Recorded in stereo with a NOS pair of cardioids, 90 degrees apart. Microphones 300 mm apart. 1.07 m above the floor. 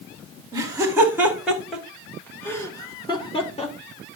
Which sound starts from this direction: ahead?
Laughter, at 0.5 s.